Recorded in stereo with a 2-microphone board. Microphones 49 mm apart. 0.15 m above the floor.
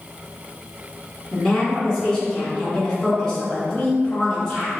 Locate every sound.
1.3 s a woman speaking: 15° left (ahead or behind), 1.9 m